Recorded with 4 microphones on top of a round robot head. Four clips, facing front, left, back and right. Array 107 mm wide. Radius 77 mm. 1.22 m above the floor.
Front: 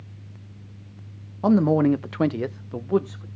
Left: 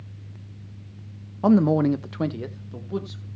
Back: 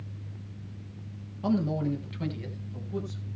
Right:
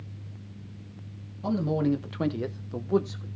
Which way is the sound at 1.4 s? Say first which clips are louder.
Left 8 dB, front 10 dB; 50° left.